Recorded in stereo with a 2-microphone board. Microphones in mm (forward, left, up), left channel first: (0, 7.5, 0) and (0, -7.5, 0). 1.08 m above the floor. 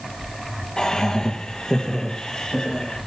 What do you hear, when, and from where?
0.8 s laughter: 65° left (ahead or behind), 0.9 m; by 3.0 s 55° left (ahead or behind), 2.5 m